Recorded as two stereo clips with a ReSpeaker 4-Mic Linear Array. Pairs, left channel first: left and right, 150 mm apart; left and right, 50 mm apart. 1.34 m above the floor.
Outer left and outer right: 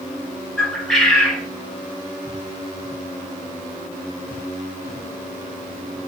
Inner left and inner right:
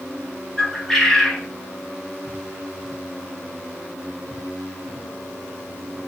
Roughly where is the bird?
Centre.